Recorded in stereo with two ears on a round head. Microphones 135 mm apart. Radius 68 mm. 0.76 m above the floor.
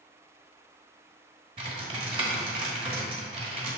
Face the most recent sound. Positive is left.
turn(degrees=-35)  # may be behind; listen again after turning